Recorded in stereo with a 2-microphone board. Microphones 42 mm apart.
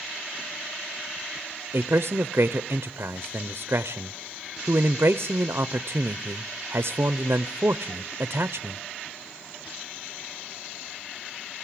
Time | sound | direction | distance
1.7 | a man speaking | 70° right (ahead or behind) | 0.5 m